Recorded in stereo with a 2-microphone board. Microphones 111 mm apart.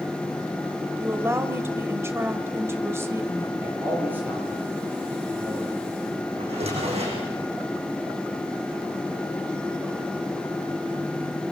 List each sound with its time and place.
1.0 s a woman speaking: 25° right (ahead or behind), 1.7 m
3.6 s a man speaking: 15° right (ahead or behind), 10 m
6.4 s a drawer: 65° right (ahead or behind), 9 m